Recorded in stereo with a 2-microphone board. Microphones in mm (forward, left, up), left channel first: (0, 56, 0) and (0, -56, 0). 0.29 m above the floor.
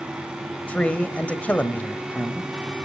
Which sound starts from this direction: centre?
A man speaking, at 0.7 s.